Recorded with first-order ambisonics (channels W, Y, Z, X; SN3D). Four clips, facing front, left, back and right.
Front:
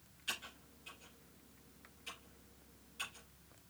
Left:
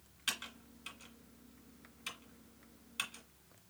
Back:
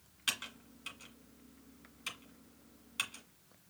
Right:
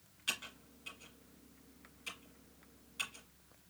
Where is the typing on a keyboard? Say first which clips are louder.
Even, back 6 dB; 150° left, 1.8 m.